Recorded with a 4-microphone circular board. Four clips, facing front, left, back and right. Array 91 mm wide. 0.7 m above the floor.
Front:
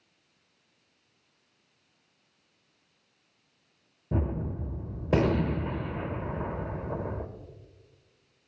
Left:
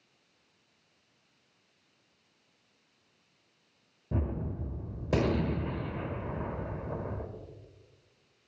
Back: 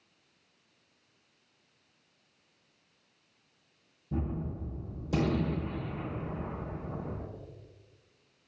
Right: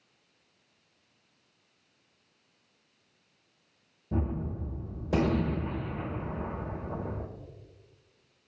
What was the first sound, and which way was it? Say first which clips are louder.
A gunshot: right 2 dB, front 4 dB; 10° left.